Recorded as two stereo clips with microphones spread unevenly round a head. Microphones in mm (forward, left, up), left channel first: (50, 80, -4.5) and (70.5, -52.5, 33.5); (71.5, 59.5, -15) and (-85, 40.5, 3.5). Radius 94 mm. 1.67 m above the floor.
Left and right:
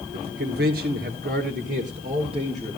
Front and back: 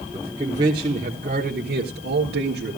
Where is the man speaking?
95° right, 1.5 m; by 2.8 s 150° right, 1.6 m.